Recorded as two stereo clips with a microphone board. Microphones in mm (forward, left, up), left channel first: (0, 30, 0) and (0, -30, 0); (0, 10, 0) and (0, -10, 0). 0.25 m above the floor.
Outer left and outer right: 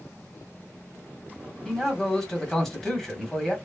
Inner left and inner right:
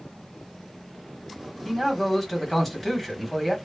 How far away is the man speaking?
About 1.3 m.